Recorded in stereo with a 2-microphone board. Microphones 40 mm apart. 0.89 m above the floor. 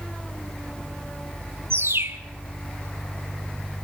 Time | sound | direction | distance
1.7 | a bird | 75° right (ahead or behind) | 1.5 m